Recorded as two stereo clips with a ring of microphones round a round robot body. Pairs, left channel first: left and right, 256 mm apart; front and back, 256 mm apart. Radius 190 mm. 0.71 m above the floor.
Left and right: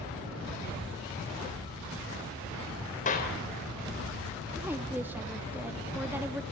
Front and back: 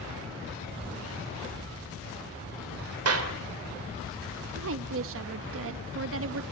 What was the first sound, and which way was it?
A clap, 155° left.